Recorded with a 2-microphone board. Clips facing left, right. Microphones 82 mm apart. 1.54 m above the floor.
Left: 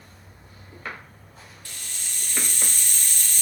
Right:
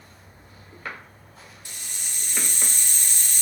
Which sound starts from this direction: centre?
A hiss, at 1.6 s.